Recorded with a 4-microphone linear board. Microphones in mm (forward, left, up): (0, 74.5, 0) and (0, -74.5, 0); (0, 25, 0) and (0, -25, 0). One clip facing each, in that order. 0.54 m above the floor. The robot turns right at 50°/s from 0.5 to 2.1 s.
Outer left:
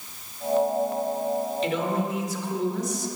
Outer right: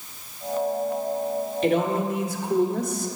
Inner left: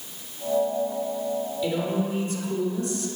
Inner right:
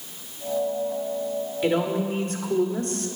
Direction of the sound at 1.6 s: 55° right (ahead or behind).